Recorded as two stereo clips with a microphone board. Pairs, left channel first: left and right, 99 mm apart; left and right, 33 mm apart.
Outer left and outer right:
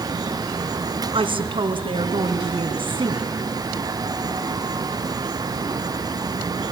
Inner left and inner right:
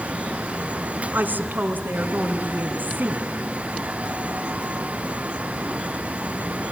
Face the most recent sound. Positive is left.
turn(degrees=-60)  # may be behind; listen again after turning